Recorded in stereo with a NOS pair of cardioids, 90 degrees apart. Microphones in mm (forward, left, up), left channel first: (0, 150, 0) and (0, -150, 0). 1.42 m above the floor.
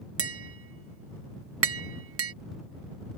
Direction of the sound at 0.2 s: 45° right.